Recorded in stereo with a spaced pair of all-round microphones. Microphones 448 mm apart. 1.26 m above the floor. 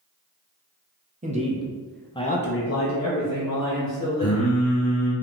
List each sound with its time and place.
1.2 s a man speaking: 15° right (ahead or behind), 0.9 m; by 4.5 s 40° left (ahead or behind), 1.5 m
4.2 s singing: 35° left (ahead or behind), 0.9 m